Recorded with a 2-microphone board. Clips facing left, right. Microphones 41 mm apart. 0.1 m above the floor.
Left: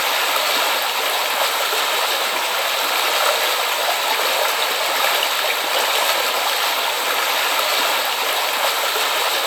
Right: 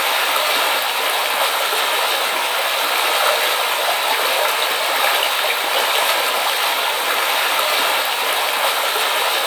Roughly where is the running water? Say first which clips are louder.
Right 1 dB; centre.